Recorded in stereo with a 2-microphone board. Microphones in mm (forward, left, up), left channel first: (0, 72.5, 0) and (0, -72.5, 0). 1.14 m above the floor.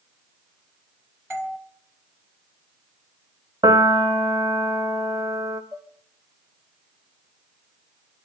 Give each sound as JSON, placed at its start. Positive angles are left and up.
{"t": 1.3, "sound": "a doorbell", "side_deg": -15, "distance_m": 2.5}
{"t": 3.6, "sound": "a piano", "side_deg": -30, "distance_m": 1.3}
{"t": 5.7, "sound": "dishes clattering", "side_deg": -35, "distance_m": 1.7}